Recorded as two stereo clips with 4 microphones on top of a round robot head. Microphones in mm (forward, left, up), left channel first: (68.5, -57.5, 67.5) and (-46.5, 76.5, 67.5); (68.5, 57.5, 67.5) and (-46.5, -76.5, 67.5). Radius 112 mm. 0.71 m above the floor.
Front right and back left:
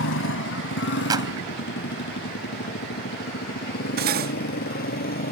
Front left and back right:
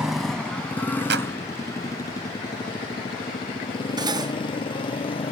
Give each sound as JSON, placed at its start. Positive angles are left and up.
{"t": 0.0, "sound": "a motorcycle", "azimuth_deg": -45}
{"t": 1.1, "sound": "a clap", "azimuth_deg": -160}
{"t": 4.0, "sound": "cutlery clinking", "azimuth_deg": 160}